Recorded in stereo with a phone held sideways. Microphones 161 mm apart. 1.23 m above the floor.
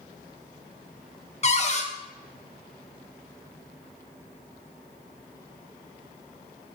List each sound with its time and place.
1.4 s a cupboard door: 40° left (ahead or behind), 0.5 m